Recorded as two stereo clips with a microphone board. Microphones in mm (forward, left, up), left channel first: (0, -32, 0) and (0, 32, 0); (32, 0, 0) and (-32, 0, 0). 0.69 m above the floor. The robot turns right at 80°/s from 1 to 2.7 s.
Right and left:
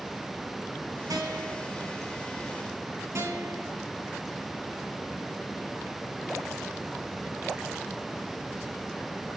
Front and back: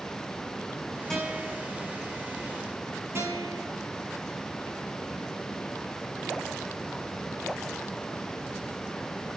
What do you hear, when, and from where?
1.1 s a guitar: 85° left, 3.5 m; by 1.7 s 130° left, 3.5 m
3.1 s a guitar: 130° left, 7 m